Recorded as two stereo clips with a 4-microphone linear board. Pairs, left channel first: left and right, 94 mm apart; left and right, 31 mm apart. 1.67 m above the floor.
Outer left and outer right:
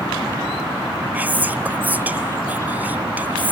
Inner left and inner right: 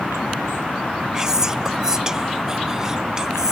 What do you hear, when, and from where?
1.1 s whispering: 20° right (ahead or behind), 0.6 m